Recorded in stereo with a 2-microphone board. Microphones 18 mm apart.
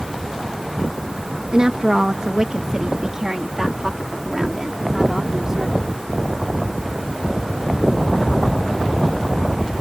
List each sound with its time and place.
1.5 s a woman speaking: 50° right (ahead or behind); by 5.8 s 25° right (ahead or behind)